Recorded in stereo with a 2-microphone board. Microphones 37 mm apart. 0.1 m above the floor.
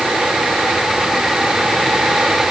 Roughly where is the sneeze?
No sneeze in this recording.